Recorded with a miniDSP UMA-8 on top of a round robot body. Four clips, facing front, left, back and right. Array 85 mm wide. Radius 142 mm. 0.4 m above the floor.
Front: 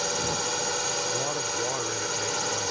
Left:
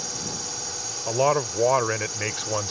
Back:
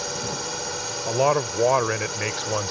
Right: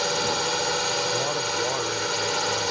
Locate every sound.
0.0 s a drone: 80° right
1.1 s a man speaking: 140° left